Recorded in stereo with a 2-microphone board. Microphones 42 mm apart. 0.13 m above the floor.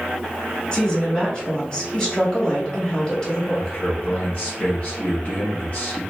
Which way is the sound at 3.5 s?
25° left (ahead or behind).